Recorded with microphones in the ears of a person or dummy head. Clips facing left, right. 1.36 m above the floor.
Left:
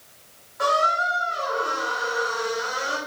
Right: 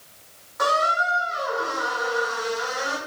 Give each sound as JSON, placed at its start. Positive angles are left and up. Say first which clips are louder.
{"t": 0.6, "sound": "a squeak", "louder": "even", "side_deg": -60, "distance_m": 3.5}